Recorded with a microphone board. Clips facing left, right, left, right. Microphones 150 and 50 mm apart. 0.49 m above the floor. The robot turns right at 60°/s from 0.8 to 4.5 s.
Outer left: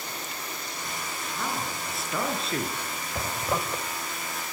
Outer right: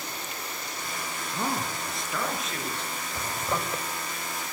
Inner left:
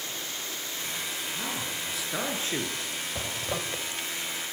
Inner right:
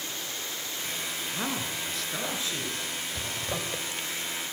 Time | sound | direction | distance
1.3 | a man speaking | 35° right | 7 m
3.1 | a zipper | 150° left | 2 m